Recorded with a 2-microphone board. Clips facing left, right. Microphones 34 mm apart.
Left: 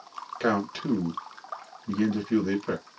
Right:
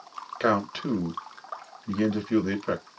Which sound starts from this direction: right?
A man speaking, at 0.4 s.